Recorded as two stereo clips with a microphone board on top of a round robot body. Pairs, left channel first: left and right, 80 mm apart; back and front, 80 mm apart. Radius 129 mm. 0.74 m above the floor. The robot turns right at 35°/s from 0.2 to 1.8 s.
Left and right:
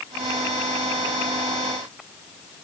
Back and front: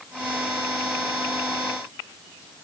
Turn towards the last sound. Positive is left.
No sound to turn to.